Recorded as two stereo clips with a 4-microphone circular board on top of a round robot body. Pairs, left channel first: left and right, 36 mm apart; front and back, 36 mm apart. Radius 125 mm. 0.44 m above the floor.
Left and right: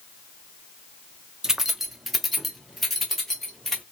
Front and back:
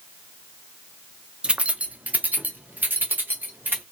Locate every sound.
1.4 s keys jangling: 150° right, 0.8 m; by 3.8 s 170° left, 1.9 m